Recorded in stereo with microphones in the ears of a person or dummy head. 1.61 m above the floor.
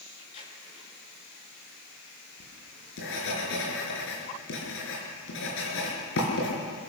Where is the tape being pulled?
35° left (ahead or behind), 7 m.